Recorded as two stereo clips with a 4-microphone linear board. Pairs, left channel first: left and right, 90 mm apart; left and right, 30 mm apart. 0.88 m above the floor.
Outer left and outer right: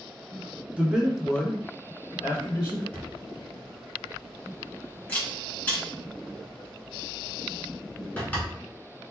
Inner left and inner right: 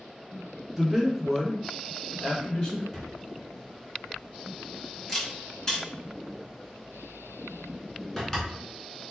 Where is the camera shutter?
15° left (ahead or behind), 1.6 m.